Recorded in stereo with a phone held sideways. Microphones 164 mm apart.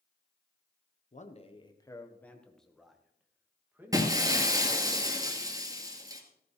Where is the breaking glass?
20° right (ahead or behind), 2.0 m.